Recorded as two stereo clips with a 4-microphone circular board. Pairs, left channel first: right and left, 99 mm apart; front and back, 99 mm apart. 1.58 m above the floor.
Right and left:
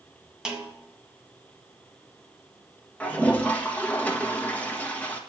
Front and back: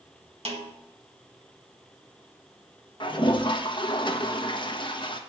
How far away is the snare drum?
About 1.6 m.